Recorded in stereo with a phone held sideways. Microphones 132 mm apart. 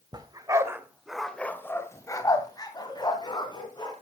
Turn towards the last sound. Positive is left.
turn(degrees=35)  # may be behind; listen again after turning